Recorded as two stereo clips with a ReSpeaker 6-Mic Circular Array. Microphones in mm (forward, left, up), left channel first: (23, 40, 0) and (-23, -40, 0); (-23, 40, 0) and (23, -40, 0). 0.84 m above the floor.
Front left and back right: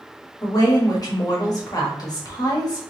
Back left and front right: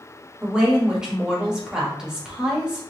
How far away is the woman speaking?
About 1.5 m.